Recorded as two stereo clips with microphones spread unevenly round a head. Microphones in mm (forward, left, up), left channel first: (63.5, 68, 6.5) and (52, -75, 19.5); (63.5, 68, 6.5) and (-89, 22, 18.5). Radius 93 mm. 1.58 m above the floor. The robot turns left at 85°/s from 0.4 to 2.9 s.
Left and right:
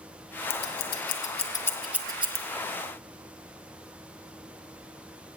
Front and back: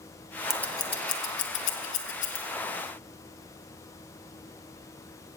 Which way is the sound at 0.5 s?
110° left.